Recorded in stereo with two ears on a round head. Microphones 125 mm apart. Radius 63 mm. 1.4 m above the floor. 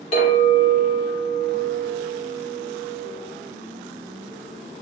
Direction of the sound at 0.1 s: 45° left (ahead or behind).